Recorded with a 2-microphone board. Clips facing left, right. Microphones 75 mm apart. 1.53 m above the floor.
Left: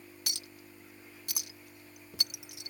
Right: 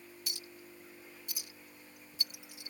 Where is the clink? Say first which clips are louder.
Left 2 dB; 70° left (ahead or behind).